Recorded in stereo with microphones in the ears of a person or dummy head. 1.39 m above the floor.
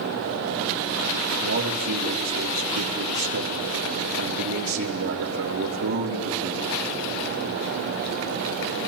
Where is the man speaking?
70° right (ahead or behind), 1.3 m.